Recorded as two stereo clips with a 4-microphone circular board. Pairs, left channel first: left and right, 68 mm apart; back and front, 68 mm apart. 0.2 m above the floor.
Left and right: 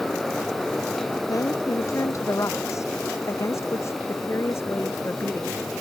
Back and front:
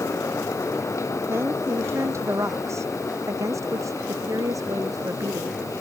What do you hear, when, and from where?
1.3 s a woman speaking: 50° left; by 5.6 s 35° left